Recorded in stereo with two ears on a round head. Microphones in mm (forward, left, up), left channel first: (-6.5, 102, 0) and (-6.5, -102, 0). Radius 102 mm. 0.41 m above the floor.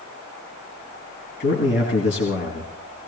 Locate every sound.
1.4 s a man speaking: 50° left (ahead or behind), 3.5 m